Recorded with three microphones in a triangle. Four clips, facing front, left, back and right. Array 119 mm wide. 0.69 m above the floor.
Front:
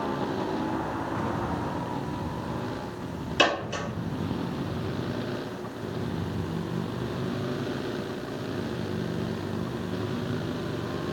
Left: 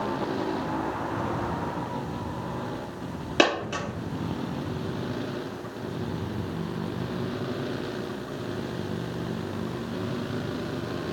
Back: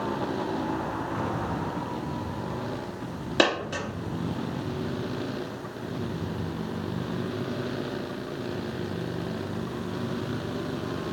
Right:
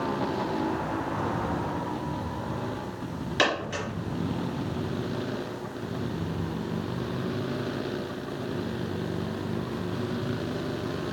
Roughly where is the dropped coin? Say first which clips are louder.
Left 4 dB, back 1 dB; behind left.